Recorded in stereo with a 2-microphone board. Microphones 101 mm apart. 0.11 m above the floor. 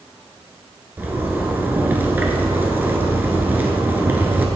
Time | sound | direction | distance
1.0 | a zipper | 20° right (ahead or behind) | 1.0 m